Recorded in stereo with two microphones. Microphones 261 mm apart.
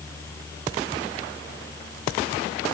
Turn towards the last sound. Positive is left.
No sound to turn to.